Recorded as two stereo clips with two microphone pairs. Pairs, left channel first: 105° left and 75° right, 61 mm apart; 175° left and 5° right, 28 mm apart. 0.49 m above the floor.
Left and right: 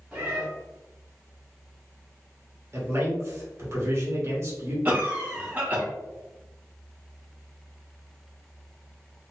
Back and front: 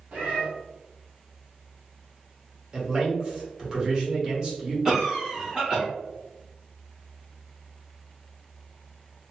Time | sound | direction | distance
0.1 | a cat meowing | 5° right | 1.7 m
2.7 | a man speaking | 50° right | 1.2 m
4.8 | a cough | 45° right | 0.8 m